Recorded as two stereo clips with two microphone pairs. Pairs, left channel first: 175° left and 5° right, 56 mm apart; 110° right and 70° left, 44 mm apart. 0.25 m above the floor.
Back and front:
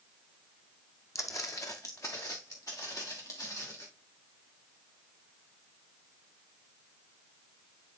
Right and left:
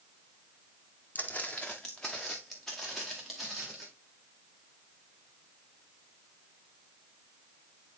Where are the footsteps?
165° right, 0.8 m; by 3.9 s 155° left, 3 m.